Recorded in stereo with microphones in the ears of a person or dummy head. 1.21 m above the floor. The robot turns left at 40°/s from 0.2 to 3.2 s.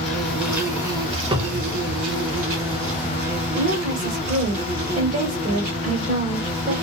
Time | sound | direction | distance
0.0 | an insect | straight ahead | 1.6 m
1.3 | a cupboard door | 30° right (ahead or behind) | 0.9 m
3.5 | a woman speaking | 40° right (ahead or behind) | 1.3 m